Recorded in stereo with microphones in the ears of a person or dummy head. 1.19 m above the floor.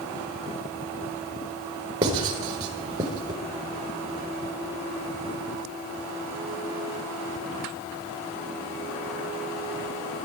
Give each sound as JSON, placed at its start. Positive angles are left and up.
{"t": 2.0, "sound": "writing", "side_deg": -25, "distance_m": 4.5}